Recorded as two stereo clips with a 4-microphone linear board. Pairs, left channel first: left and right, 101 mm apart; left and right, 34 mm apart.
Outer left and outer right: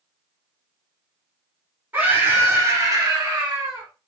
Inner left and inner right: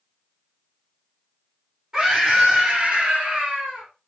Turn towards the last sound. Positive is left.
turn(degrees=-35)  # may be behind; listen again after turning